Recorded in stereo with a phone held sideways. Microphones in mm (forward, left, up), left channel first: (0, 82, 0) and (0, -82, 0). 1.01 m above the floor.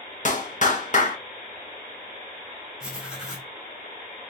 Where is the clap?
50° left (ahead or behind), 0.9 m.